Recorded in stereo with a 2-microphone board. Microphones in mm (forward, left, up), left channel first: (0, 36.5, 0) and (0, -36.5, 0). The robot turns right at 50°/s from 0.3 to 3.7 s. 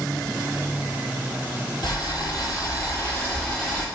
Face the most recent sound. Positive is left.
turn(degrees=-175)